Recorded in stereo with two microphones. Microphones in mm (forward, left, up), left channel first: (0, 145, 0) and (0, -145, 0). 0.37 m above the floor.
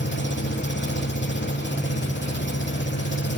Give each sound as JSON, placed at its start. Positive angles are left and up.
{"t": 0.0, "sound": "an engine running", "side_deg": 40, "distance_m": 1.1}